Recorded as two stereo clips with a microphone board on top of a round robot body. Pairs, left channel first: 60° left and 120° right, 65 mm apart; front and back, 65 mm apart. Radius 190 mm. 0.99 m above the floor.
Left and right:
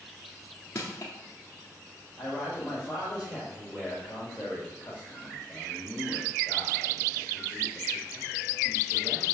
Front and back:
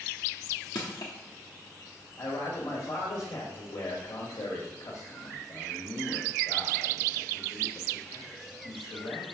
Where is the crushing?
5° right, 0.6 m.